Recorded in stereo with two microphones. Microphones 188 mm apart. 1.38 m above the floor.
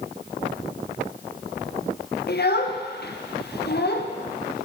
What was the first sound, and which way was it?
A child speaking, 60° left (ahead or behind).